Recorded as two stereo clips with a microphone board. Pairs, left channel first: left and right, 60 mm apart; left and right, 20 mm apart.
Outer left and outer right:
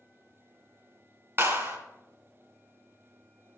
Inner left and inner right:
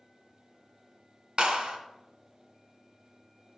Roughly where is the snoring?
No snoring in this recording.